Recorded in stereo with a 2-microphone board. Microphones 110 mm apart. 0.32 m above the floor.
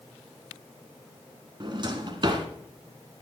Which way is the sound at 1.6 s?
40° right (ahead or behind).